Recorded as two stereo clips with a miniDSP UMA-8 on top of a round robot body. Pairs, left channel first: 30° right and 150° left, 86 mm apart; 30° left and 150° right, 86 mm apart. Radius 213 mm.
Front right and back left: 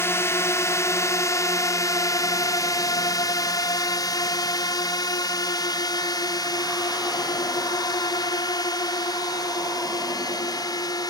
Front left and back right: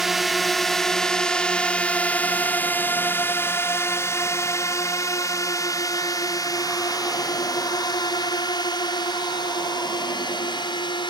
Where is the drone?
65° right; by 11.1 s 10° left.